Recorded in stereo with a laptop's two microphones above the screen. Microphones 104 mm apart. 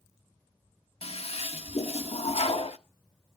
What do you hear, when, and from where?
1.0 s a toilet flushing: 70° left (ahead or behind), 1.0 m